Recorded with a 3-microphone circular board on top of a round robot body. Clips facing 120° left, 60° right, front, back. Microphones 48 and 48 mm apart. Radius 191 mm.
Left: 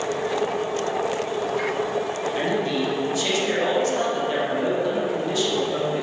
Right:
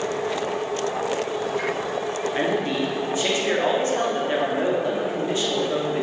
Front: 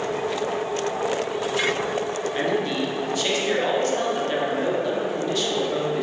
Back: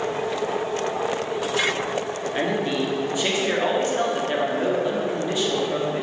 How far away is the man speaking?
About 2 m.